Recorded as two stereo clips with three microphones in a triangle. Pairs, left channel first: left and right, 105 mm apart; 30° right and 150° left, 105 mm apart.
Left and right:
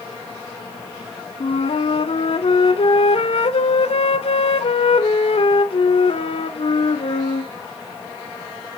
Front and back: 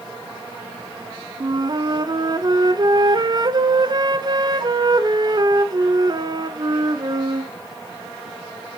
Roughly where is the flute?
Left.